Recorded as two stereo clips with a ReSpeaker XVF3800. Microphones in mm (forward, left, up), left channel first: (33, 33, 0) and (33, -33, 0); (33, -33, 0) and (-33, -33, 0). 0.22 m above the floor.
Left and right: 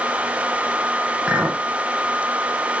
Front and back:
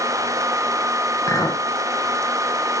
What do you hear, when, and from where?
1.3 s a clink: 20° right, 1.2 m